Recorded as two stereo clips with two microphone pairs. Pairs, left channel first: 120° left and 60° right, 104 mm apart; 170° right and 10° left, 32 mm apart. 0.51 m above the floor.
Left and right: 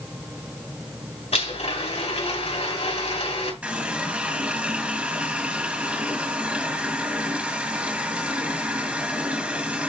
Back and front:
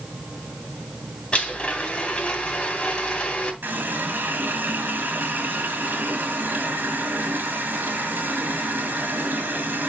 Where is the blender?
130° left, 2.5 m.